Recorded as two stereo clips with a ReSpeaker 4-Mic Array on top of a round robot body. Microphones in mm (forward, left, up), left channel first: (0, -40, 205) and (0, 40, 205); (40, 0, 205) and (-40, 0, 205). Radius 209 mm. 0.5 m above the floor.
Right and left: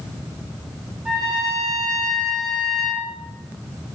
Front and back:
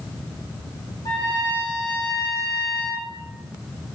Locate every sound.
1.1 s a trumpet: 10° left, 2.0 m